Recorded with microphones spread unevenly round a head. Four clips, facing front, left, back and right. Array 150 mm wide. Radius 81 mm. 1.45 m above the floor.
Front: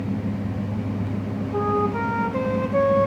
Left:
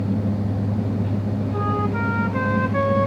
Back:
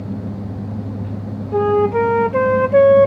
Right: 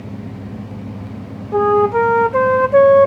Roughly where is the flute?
Behind right.